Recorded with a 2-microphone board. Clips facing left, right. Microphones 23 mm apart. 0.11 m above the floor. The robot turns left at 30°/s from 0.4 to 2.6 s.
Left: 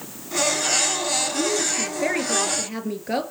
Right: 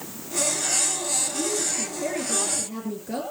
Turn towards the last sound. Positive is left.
turn(degrees=75)